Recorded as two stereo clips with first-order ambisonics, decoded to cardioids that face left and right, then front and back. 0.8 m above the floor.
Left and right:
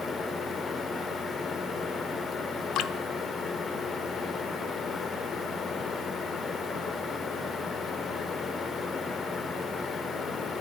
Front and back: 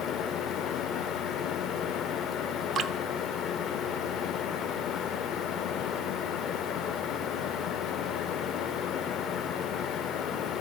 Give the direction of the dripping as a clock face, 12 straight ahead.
8 o'clock.